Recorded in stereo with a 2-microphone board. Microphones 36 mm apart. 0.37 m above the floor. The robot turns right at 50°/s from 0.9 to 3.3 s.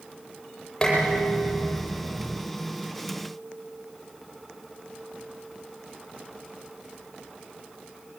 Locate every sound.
0.8 s dishes clattering: 20° left (ahead or behind), 8.5 m; by 2.4 s 85° left, 8.5 m